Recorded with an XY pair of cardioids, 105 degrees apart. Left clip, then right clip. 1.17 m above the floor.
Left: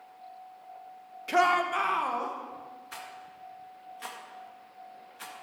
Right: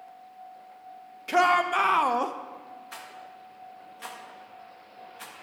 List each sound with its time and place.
1.3 s a shout: 5° right, 1.2 m; by 2.4 s 70° right, 1.0 m
2.9 s a rattle: straight ahead, 1.8 m